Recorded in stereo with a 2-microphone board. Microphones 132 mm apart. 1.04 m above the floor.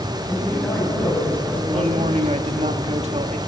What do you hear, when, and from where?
0.3 s a man speaking: 10° left (ahead or behind), 7.5 m
1.7 s a man speaking: 55° right (ahead or behind), 1.4 m